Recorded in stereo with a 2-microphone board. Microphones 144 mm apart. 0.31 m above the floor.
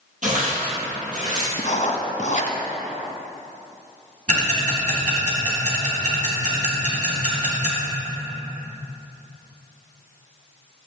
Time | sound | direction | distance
0.2 | tearing paper | 60° right (ahead or behind) | 2.5 m
1.6 | writing | 60° left (ahead or behind) | 1.0 m
4.3 | ticking | 60° right (ahead or behind) | 2 m